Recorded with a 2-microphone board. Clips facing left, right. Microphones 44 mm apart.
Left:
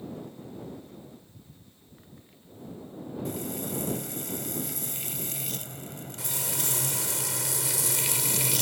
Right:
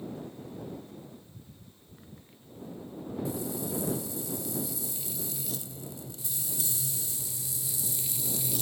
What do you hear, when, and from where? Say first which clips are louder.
3.2 s frying: left 1 dB; 60° left (ahead or behind)
6.2 s frying: left 6 dB; 85° left